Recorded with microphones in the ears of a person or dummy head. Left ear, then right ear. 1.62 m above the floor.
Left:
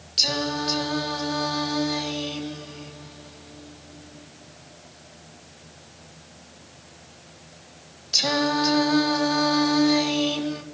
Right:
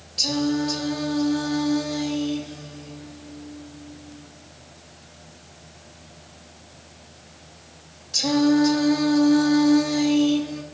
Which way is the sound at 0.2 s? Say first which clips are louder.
Left 1 dB; 70° left (ahead or behind).